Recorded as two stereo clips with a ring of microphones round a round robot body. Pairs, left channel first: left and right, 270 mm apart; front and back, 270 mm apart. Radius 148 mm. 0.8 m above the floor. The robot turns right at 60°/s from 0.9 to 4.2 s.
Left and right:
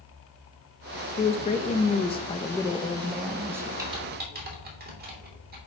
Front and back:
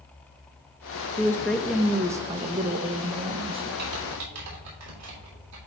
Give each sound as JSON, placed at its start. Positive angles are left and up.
{"t": 1.2, "sound": "a woman speaking", "azimuth_deg": 60, "distance_m": 0.6}
{"t": 3.8, "sound": "typing on a keyboard", "azimuth_deg": -170, "distance_m": 2.5}